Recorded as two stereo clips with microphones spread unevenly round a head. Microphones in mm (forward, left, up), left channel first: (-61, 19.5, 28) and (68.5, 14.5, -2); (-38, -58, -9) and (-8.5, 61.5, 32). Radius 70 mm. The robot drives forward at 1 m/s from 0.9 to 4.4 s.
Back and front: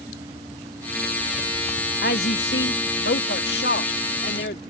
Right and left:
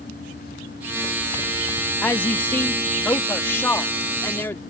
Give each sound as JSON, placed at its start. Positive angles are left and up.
{"t": 2.0, "sound": "a woman speaking", "azimuth_deg": 180}